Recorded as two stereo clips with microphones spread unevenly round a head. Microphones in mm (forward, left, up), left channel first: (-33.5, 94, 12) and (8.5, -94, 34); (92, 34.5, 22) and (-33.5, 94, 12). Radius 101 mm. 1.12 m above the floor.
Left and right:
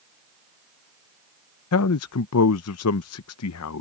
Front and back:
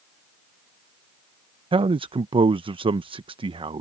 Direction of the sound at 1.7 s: 100° left.